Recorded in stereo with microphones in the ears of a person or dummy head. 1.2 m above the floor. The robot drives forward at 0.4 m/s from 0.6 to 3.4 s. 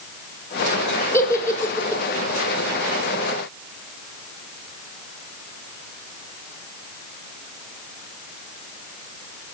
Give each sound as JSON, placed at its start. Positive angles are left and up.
{"t": 1.1, "sound": "a giggle", "side_deg": 15, "distance_m": 2.5}